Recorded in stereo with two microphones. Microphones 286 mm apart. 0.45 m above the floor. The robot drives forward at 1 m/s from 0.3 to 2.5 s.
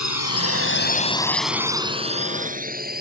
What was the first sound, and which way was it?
A drone, 75° left (ahead or behind).